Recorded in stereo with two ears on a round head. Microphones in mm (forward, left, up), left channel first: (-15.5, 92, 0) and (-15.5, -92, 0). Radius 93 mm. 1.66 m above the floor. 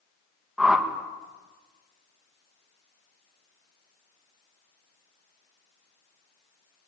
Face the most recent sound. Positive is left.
turn(degrees=0)  # may be behind; listen again after turning